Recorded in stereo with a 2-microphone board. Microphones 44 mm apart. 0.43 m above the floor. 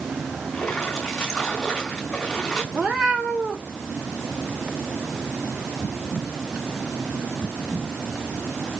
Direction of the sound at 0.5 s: 15° left (ahead or behind).